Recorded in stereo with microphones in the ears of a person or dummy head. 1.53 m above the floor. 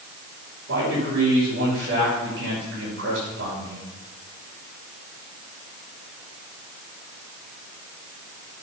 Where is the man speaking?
60° right (ahead or behind), 5 m.